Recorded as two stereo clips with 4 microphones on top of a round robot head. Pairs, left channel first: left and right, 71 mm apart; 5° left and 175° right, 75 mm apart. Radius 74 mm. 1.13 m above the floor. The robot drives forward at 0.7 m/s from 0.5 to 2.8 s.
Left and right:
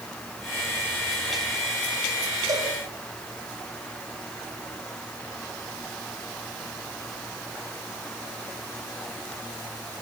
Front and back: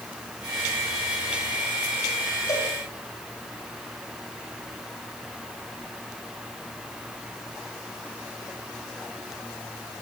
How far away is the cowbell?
About 7.5 m.